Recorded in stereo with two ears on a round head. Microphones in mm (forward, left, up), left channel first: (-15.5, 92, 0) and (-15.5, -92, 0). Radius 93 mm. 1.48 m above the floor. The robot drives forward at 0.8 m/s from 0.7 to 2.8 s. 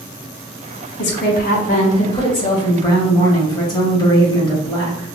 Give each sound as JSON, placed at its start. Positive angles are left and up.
{"t": 1.0, "sound": "a woman speaking", "side_deg": 60, "distance_m": 0.9}